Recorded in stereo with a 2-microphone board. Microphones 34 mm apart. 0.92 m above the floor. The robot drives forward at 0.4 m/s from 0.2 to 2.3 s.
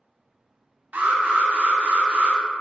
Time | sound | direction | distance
0.9 | an alarm | 50° right (ahead or behind) | 1.2 m